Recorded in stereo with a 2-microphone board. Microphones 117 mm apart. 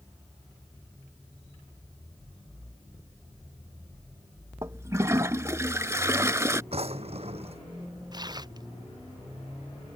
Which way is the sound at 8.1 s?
35° right (ahead or behind).